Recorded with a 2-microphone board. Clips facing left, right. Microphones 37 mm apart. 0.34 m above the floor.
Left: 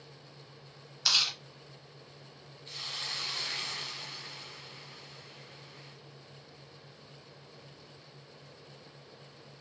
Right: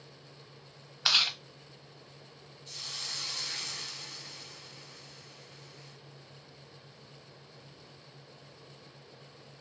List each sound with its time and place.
1.1 s chewing: 30° right (ahead or behind), 0.9 m
2.7 s a hiss: 25° left (ahead or behind), 0.7 m